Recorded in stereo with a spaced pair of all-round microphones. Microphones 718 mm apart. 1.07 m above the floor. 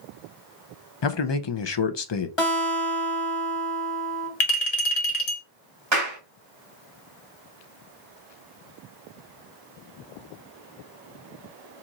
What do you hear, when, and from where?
1.0 s a man speaking: 40° left (ahead or behind), 0.5 m
2.4 s a guitar: 45° left (ahead or behind), 1.3 m
4.4 s a clink: 60° left (ahead or behind), 1.1 m
5.9 s a clap: 35° right (ahead or behind), 2.0 m